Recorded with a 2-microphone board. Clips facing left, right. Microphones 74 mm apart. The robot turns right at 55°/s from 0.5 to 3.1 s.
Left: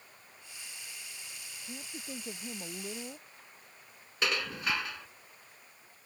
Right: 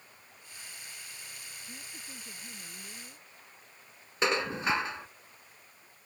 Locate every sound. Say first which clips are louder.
1.7 s a woman speaking: left 8 dB; 30° left; by 3.3 s 110° left
4.2 s dishes clattering: right 4 dB; 30° right (ahead or behind)